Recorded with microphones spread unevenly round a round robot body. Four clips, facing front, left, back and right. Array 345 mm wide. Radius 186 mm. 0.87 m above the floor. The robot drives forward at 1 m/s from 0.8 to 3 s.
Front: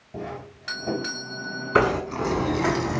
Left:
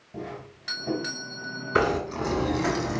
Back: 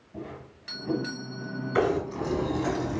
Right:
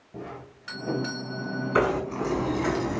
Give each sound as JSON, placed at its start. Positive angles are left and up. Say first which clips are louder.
{"t": 0.1, "sound": "a doorbell", "louder": "left 2 dB, front 6 dB", "azimuth_deg": 5, "distance_m": 6.5}
{"t": 1.8, "sound": "knocking", "louder": "even, front 4 dB", "azimuth_deg": 10, "distance_m": 7.5}